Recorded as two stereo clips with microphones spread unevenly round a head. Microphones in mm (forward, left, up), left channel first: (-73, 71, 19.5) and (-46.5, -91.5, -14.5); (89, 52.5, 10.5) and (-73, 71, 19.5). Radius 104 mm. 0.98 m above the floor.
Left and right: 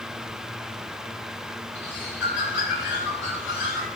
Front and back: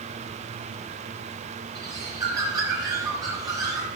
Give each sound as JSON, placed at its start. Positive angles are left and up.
{"t": 1.8, "sound": "a bird", "azimuth_deg": 105, "distance_m": 5.0}